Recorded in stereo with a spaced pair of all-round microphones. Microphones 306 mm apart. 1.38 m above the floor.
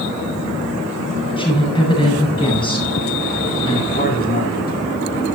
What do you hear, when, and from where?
1.4 s a woman speaking: 15° left (ahead or behind), 9 m
3.9 s a man speaking: 30° left (ahead or behind), 5 m